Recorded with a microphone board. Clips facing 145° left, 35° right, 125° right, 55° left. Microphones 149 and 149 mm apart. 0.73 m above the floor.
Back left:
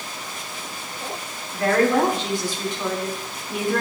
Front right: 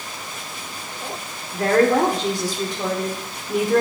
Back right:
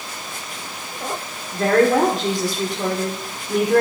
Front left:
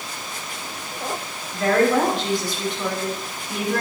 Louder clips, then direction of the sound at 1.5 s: Front right 2 dB, back right 2 dB; 85° right.